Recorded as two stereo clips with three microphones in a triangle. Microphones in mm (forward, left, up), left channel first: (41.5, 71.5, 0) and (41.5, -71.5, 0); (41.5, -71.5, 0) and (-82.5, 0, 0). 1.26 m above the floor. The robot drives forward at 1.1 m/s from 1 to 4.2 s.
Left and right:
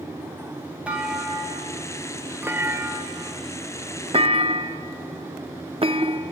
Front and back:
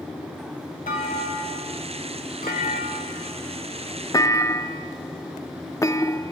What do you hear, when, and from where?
0.9 s a clunk: 10° right, 3.5 m; by 6.3 s 85° right, 0.8 m